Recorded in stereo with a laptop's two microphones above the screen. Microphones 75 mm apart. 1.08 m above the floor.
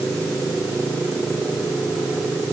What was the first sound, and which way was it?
Only background noise.